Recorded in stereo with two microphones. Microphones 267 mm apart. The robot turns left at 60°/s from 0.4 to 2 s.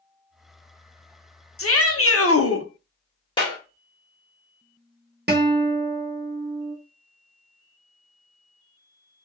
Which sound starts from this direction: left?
A shout, at 1.6 s.